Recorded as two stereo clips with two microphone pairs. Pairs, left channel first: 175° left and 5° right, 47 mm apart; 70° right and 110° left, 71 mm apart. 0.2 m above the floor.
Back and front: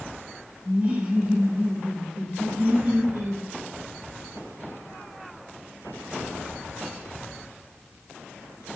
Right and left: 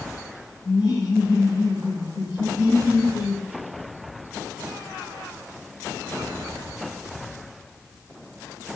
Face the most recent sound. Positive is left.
turn(degrees=-55)